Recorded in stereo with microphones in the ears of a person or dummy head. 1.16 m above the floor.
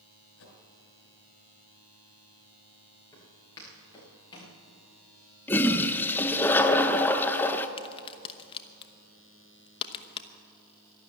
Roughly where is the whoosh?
Left.